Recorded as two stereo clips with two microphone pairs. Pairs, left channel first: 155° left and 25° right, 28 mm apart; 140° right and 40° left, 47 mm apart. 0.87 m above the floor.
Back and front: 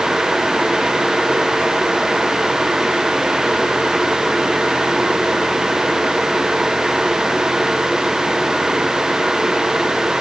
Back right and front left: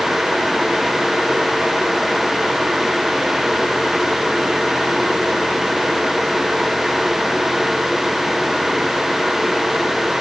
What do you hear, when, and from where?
Only background noise.